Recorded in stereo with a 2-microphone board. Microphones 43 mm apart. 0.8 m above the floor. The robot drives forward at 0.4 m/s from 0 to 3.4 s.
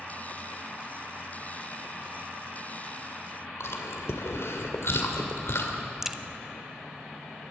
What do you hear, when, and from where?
3.6 s chewing: 75° left (ahead or behind), 2 m
6.0 s a crack: 10° right (ahead or behind), 0.8 m